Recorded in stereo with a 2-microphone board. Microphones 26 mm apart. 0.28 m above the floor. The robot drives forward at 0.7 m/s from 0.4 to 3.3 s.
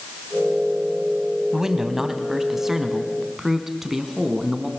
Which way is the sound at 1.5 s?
15° right (ahead or behind).